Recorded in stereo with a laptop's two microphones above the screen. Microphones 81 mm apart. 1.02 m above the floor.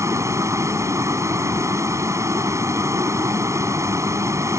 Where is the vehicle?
40° right (ahead or behind).